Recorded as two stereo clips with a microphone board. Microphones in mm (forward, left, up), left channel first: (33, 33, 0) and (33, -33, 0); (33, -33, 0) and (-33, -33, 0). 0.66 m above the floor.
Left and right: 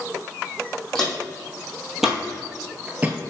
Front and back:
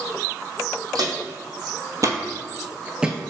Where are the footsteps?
175° left, 1.6 m; by 3.2 s 100° right, 0.7 m.